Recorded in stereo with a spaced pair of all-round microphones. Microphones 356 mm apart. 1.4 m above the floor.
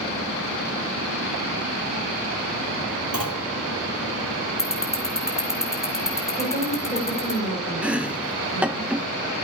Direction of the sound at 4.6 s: 10° left (ahead or behind).